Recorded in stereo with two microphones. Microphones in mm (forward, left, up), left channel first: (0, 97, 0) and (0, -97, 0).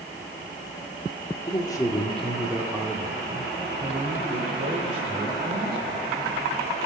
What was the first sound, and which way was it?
A man speaking, 25° left (ahead or behind).